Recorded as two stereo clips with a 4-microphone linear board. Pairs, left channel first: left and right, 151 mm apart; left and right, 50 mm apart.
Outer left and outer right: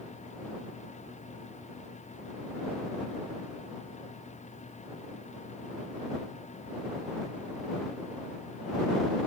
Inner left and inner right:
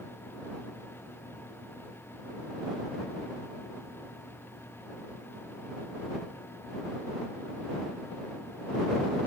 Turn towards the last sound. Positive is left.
No sound to turn to.